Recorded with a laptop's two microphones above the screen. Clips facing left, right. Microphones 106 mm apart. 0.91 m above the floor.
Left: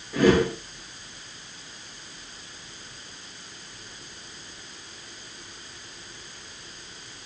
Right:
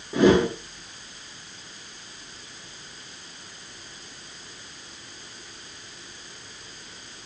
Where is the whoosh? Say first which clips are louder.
Right 2 dB; 25° right (ahead or behind), 0.6 m.